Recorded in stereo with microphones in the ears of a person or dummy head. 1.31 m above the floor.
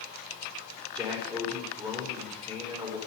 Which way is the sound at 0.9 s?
25° right (ahead or behind).